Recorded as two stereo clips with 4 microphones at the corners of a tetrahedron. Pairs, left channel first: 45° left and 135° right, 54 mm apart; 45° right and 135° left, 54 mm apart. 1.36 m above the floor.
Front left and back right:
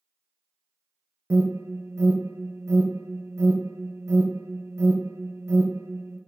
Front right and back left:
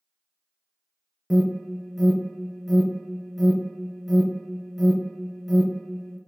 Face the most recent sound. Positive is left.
turn(degrees=-135)